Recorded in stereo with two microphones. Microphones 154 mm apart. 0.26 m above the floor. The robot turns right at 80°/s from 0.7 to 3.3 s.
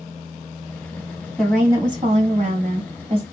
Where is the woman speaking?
175° left, 1.6 m; by 3.2 s 40° right, 1.6 m.